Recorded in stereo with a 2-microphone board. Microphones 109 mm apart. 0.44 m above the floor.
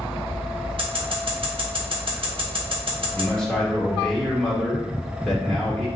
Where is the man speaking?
5° left (ahead or behind), 0.9 m.